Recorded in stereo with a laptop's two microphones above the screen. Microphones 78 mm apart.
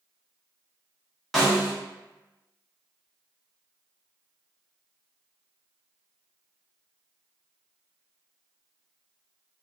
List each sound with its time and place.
1.3 s a snare drum: 5° left (ahead or behind), 1.0 m